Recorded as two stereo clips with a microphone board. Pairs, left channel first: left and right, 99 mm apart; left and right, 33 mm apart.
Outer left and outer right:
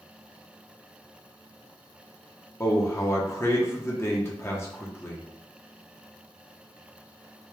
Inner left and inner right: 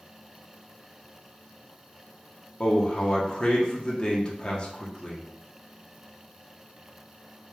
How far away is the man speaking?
About 0.9 m.